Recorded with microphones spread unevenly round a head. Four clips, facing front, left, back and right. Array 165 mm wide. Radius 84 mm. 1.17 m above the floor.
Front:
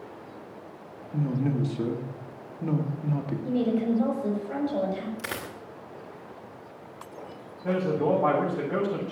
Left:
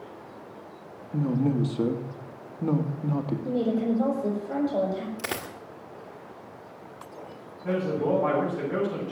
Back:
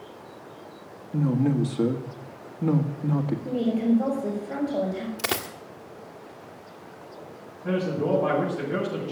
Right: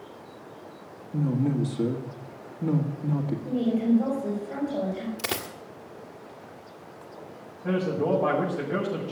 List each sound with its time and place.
1.1 s a man speaking: 130° left, 2 m
3.5 s a woman speaking: 115° left, 7 m
5.2 s a dropped coin: 150° left, 1.9 m
7.6 s a man speaking: 50° right, 7.5 m